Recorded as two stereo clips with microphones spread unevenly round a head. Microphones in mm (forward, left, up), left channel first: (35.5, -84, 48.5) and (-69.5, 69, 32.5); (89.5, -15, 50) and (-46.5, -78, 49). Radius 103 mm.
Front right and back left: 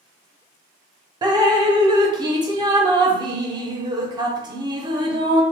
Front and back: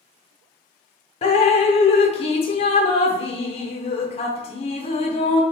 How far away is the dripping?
About 0.5 m.